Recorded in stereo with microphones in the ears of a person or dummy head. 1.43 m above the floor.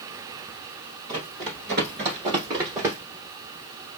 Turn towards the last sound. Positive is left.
turn(degrees=-15)  # may be behind; listen again after turning